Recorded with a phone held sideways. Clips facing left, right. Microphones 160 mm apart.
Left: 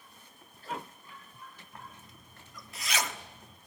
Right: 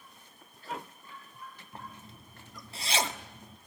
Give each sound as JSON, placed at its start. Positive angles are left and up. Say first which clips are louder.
{"t": 1.7, "sound": "a zipper", "louder": "right 4 dB", "side_deg": -30, "distance_m": 1.3}